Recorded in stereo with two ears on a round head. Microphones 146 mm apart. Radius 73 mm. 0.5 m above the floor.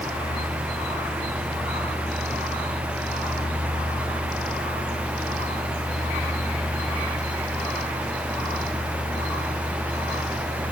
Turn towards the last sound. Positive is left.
No sound to turn to.